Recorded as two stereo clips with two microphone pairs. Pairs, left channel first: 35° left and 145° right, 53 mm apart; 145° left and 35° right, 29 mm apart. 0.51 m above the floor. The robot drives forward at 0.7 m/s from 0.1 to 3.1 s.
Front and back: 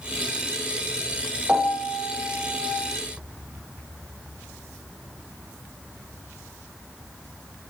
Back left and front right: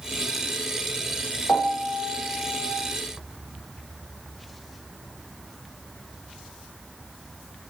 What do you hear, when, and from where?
1.5 s a piano: 125° left, 8.5 m; by 2.8 s 130° left, 9 m